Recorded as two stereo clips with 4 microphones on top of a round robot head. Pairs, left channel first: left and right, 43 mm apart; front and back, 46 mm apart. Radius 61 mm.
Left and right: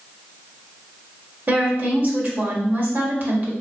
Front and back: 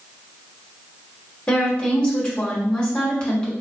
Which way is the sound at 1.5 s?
70° right.